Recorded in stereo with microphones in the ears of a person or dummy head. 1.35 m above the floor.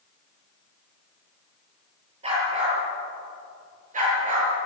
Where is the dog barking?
35° right (ahead or behind), 8 m; by 4.5 s 45° right (ahead or behind), 7 m.